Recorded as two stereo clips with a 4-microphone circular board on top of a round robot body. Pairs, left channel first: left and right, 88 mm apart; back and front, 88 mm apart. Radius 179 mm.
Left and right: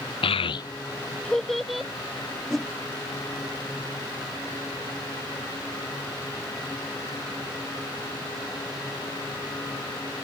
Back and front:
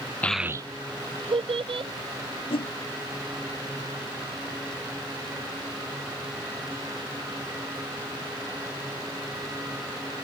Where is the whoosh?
175° left.